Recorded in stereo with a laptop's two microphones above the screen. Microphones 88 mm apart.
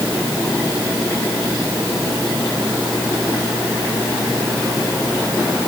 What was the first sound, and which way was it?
Only background noise.